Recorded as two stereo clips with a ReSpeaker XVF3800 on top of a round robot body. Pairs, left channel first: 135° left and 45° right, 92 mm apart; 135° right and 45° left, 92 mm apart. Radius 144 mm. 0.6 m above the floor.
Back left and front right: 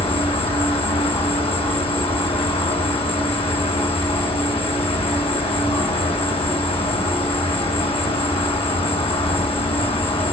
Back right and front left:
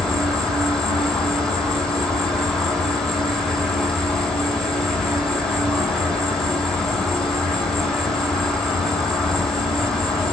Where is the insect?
140° left, 7 m.